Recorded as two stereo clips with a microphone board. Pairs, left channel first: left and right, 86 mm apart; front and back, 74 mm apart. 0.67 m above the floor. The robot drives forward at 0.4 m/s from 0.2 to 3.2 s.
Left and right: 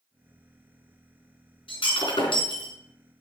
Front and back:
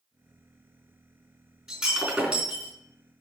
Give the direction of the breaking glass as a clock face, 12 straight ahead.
9 o'clock.